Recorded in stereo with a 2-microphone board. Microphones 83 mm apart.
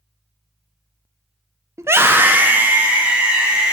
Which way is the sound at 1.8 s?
35° right (ahead or behind).